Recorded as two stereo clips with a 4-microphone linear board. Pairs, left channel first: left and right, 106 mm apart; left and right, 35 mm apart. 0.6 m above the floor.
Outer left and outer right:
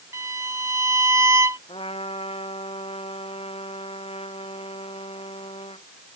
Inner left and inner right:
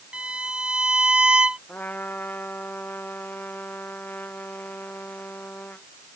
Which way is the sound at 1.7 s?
65° left (ahead or behind).